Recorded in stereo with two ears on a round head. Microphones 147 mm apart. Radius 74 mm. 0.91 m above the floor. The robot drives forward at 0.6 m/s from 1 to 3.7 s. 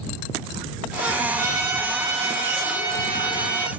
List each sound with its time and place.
1.4 s a trumpet: 15° right (ahead or behind), 9.5 m